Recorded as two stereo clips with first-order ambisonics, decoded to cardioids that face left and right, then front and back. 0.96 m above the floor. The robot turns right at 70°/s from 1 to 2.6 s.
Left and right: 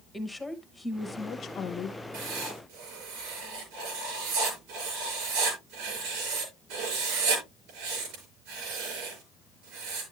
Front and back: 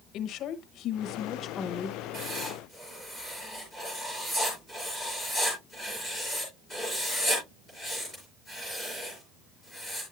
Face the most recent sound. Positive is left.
turn(degrees=-75)